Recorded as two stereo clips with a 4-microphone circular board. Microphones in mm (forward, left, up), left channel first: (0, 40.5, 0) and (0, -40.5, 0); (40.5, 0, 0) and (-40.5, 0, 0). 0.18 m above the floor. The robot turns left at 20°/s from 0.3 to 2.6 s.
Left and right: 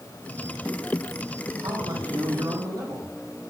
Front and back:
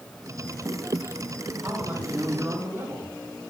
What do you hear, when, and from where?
1.6 s a man speaking: 105° right, 7 m; by 3.1 s 125° right, 7 m